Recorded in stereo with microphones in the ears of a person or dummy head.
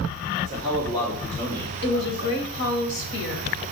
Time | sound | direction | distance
0.4 | a man speaking | 10° left (ahead or behind) | 3.5 m
1.8 | a woman speaking | 60° left (ahead or behind) | 1.3 m